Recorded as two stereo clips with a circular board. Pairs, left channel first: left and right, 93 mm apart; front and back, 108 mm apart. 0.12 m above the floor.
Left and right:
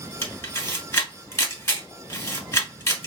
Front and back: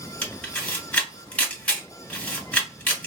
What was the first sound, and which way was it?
A camera shutter, 70° left.